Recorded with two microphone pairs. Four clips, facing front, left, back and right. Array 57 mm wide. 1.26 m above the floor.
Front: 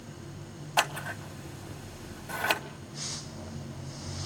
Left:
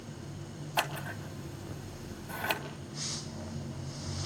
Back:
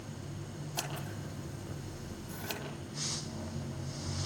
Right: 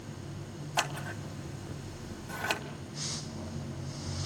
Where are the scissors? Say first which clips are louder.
Even, front 13 dB; straight ahead, 2.0 m.